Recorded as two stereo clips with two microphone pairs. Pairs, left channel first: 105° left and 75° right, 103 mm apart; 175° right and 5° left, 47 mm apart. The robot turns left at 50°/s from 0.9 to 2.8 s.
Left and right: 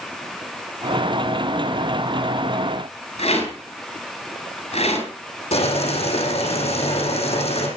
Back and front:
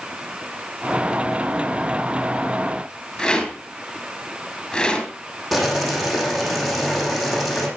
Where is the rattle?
110° left, 7 m.